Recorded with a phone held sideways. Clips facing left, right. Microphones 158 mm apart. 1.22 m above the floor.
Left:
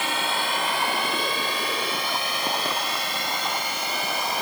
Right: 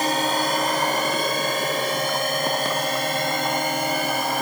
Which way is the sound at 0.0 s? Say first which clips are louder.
Right 6 dB; 40° right (ahead or behind).